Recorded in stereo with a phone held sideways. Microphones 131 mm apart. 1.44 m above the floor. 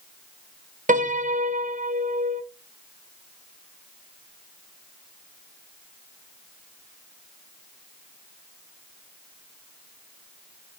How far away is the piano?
About 0.7 m.